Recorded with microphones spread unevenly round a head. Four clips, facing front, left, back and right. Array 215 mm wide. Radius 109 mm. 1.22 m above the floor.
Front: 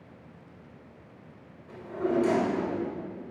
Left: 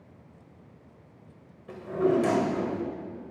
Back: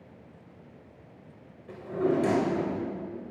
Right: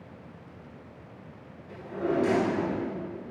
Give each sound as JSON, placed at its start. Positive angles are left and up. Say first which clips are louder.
{"t": 1.7, "sound": "a drawer", "louder": "left 5 dB, back 2 dB", "azimuth_deg": 130, "distance_m": 2.0}